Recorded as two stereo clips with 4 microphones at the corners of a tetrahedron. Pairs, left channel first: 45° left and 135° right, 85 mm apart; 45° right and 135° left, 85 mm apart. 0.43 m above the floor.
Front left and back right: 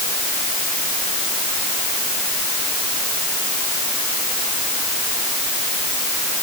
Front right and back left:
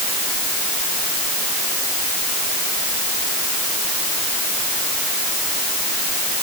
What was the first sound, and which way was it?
Only background noise.